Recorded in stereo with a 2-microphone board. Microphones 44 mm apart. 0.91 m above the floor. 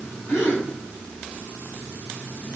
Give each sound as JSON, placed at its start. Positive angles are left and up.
{"t": 0.3, "sound": "a gasp", "side_deg": 70, "distance_m": 6.0}